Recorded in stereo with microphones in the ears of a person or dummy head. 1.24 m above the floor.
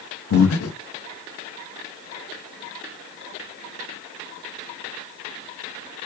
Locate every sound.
0.3 s breathing: 75° left (ahead or behind), 0.9 m